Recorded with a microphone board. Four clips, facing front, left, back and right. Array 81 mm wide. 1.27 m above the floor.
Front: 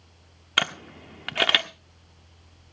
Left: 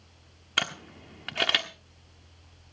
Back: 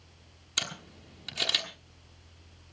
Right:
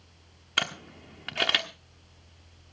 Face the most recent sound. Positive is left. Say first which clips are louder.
# even, front 12 dB
turn(degrees=0)